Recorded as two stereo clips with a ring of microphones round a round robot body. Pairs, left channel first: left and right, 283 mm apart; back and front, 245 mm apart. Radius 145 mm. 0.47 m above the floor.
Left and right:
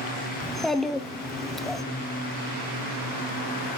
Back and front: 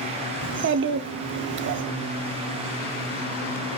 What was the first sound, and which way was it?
A child speaking, straight ahead.